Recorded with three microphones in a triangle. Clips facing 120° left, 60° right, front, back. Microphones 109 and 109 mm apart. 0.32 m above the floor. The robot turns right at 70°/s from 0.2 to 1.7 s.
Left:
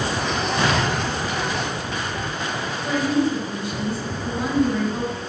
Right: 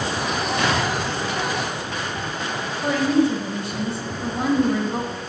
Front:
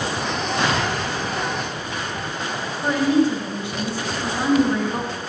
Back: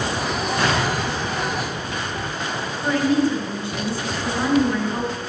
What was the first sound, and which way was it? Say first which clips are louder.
An explosion: left 1 dB, back 1 dB; 65° left.